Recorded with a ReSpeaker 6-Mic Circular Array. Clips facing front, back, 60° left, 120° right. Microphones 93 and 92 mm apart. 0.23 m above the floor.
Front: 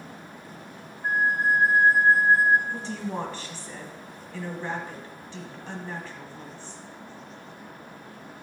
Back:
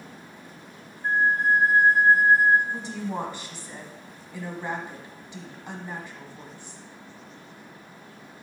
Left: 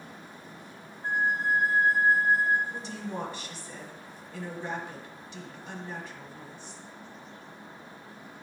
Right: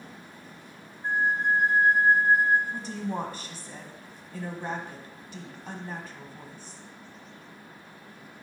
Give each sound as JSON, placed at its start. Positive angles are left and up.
{"t": 1.0, "sound": "a flute", "azimuth_deg": -80, "distance_m": 0.8}
{"t": 2.7, "sound": "a woman speaking", "azimuth_deg": -115, "distance_m": 1.4}